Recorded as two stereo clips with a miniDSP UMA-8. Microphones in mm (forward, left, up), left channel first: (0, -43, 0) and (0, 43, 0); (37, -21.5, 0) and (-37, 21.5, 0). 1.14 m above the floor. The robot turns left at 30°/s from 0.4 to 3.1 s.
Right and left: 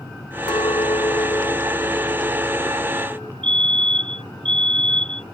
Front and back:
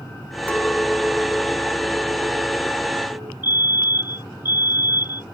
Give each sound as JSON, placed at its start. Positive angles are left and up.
{"t": 0.5, "sound": "a clink", "azimuth_deg": -105}
{"t": 3.4, "sound": "a fire alarm", "azimuth_deg": 85}